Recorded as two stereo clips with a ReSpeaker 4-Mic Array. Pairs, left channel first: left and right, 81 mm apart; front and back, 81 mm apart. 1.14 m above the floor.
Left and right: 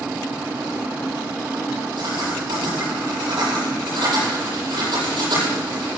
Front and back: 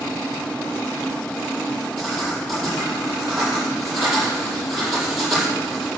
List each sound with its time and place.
2.0 s writing: 90° right, 7.5 m